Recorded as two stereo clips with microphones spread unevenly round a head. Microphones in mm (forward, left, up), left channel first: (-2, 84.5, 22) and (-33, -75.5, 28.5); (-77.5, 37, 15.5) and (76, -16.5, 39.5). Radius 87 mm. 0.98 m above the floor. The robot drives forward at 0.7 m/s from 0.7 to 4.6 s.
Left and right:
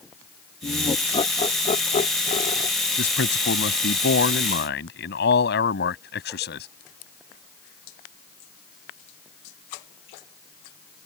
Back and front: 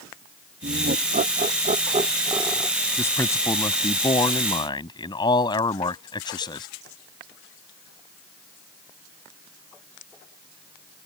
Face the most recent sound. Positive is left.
turn(degrees=95)